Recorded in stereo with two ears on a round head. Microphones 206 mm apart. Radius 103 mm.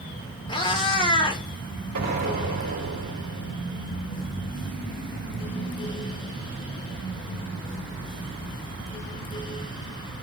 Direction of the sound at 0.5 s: 20° left (ahead or behind).